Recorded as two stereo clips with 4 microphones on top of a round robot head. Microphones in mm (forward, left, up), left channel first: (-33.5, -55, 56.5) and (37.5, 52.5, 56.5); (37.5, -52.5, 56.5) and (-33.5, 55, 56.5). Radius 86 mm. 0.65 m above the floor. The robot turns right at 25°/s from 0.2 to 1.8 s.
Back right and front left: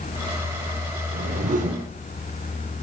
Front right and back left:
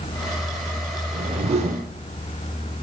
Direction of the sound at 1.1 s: 70° left.